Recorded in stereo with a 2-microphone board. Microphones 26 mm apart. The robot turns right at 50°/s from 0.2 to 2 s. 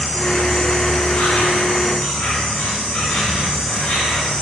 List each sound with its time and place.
0.0 s an insect: 15° left, 2.5 m; by 4.4 s 105° left, 2.5 m